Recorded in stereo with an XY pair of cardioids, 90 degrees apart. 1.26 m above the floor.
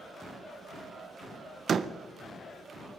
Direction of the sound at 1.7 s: 50° right.